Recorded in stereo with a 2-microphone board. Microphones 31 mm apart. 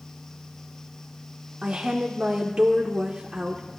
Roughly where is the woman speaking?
Right.